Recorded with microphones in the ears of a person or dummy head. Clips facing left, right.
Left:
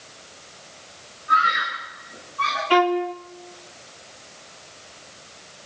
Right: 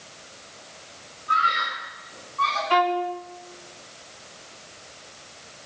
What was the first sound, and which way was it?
A scream, 20° left (ahead or behind).